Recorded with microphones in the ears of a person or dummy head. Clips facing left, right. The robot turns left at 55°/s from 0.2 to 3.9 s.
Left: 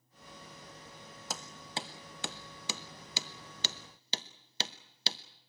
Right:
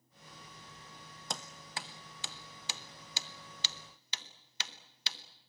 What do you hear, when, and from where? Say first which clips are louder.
1.3 s hammering: left 2 dB; 5° left (ahead or behind), 1.0 m; by 5.2 s 35° left (ahead or behind), 1.0 m